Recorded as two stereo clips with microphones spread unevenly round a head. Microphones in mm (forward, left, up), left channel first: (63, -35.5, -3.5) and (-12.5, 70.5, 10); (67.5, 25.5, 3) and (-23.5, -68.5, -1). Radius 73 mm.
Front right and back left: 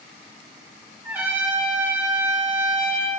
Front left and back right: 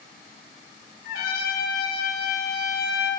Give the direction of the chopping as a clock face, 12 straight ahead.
No chopping in this recording.